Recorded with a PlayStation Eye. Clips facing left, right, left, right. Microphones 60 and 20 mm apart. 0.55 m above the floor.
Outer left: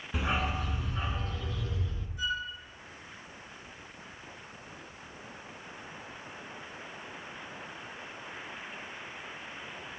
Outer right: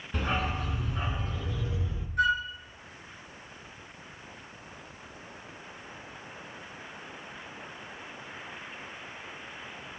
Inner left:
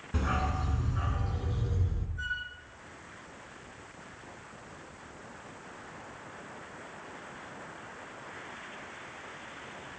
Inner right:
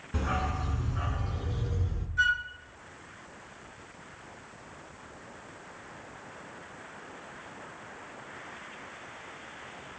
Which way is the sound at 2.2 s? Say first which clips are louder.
Outer right 9 dB, inner right 10 dB; 65° right (ahead or behind).